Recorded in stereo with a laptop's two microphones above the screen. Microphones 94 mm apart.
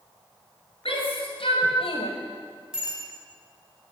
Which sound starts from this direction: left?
A shout, at 0.8 s.